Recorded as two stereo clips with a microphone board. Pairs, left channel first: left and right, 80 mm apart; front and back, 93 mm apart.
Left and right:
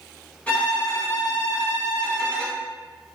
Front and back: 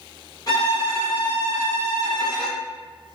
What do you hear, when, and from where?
0.5 s a violin: 25° left, 1.7 m